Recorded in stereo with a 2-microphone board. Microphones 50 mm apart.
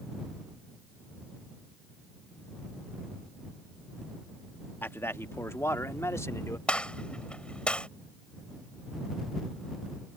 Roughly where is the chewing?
No chewing in this recording.